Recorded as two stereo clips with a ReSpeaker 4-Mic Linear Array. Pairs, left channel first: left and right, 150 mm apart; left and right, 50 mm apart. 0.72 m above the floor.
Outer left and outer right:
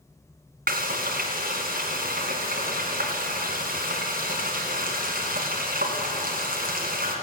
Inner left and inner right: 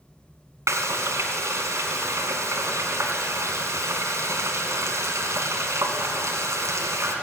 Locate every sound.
0.7 s frying: 70° right (ahead or behind), 2 m